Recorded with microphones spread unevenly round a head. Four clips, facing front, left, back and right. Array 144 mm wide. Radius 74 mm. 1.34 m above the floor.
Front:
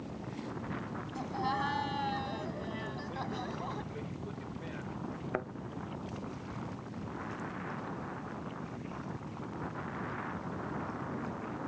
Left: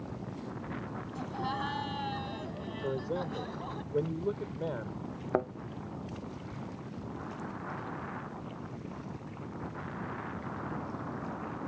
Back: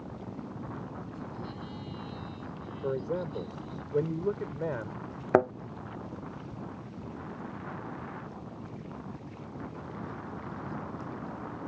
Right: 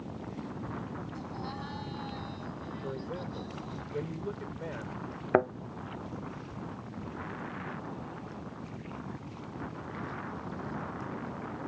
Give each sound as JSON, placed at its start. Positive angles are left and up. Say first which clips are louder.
{"t": 1.1, "sound": "laughter", "louder": "left 4 dB, front 7 dB", "azimuth_deg": 25}
{"t": 2.8, "sound": "a man speaking", "louder": "left 5 dB, back 7 dB", "azimuth_deg": 160}
{"t": 5.3, "sound": "a thud", "louder": "right 5 dB, back 15 dB", "azimuth_deg": -155}